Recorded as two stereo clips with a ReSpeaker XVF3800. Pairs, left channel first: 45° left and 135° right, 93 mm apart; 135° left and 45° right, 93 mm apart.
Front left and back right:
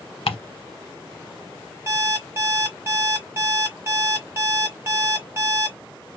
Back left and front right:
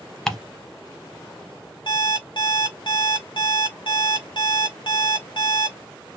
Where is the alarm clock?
165° left, 1.4 m.